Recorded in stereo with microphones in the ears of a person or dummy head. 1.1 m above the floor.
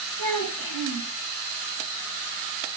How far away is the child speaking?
About 3 m.